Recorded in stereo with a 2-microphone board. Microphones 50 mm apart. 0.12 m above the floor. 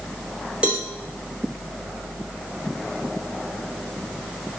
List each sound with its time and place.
0.6 s a cowbell: 25° right (ahead or behind), 2.5 m